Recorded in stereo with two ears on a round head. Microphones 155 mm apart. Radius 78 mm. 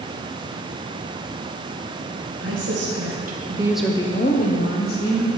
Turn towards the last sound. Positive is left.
turn(degrees=60)  # may be behind; listen again after turning